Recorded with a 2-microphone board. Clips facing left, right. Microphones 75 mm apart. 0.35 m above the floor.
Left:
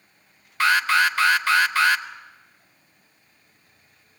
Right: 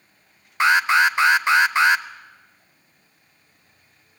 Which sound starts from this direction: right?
An alarm, at 0.6 s.